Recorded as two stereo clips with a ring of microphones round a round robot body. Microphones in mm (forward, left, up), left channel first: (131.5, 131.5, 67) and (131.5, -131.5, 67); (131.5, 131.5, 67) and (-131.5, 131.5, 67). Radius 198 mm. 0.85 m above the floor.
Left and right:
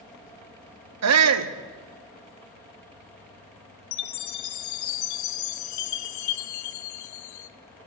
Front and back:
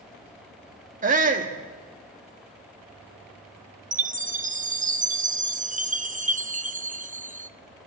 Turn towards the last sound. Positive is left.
turn(degrees=115)